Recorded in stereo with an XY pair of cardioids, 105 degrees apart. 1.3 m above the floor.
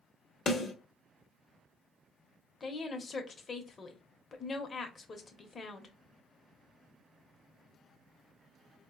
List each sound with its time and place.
0.5 s a snare drum: 45° left, 0.8 m
2.6 s a woman speaking: 35° left, 0.8 m